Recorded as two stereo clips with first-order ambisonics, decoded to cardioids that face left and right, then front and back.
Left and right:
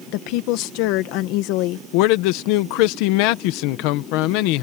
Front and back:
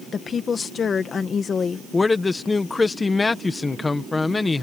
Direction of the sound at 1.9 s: 80° left.